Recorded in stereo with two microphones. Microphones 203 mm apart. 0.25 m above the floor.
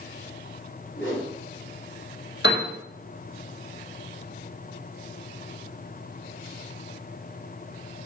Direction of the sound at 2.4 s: 60° left (ahead or behind).